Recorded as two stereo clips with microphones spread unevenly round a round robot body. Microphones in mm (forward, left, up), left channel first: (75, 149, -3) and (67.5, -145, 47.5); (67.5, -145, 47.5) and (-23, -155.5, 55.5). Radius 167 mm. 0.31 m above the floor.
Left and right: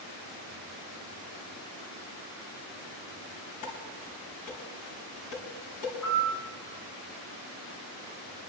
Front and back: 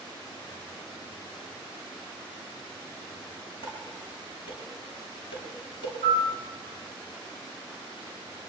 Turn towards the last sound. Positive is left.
turn(degrees=180)